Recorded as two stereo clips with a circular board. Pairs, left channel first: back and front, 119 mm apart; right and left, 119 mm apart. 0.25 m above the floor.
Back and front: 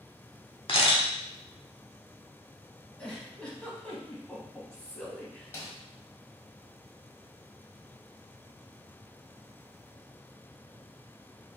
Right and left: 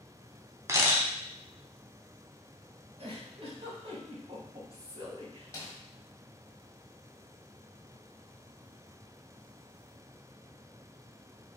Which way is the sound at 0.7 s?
150° left.